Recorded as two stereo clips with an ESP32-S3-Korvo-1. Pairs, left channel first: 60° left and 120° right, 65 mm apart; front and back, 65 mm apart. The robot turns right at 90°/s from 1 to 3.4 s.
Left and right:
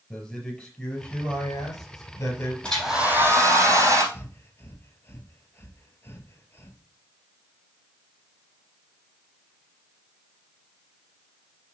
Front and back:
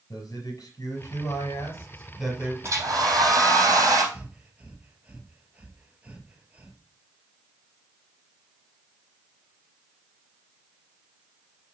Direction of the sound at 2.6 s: 135° left.